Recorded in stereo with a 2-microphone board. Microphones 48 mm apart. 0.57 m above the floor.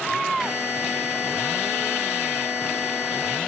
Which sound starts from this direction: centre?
A buzzer, at 0.4 s.